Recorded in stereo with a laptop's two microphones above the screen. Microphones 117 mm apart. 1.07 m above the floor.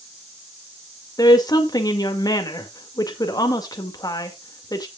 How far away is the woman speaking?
About 1.9 m.